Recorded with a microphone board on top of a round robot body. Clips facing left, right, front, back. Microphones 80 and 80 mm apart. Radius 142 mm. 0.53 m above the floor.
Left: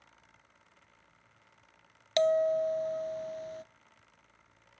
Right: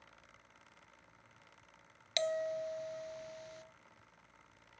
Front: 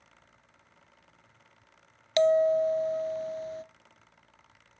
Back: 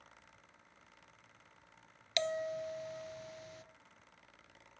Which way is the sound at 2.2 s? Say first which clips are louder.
Left 10 dB, front 15 dB; 45° left.